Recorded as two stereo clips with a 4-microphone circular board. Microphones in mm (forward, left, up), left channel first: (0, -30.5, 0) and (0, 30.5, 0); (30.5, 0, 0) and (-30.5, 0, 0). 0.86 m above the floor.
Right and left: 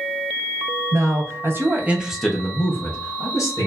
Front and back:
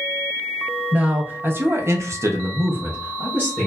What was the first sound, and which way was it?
A man speaking, 115° left.